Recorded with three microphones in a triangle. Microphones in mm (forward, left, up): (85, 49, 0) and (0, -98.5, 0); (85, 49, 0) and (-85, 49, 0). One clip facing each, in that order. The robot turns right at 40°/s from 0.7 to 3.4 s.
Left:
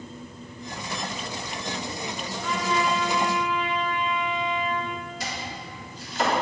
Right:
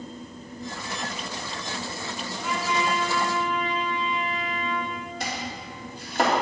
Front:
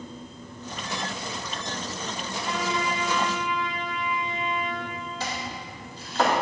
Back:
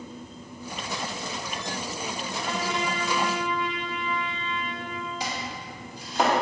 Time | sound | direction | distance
2.3 | a trumpet | 150° left | 1.8 m
5.2 | chopping | 105° right | 2 m